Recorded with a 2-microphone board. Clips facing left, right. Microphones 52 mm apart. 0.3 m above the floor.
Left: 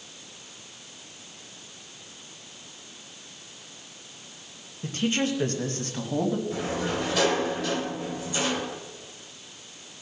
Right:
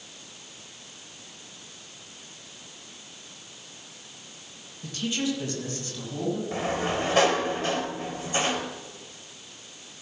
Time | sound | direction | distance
4.8 | a man speaking | 35° left (ahead or behind) | 1.1 m
6.5 | a sliding door | 40° right (ahead or behind) | 2.5 m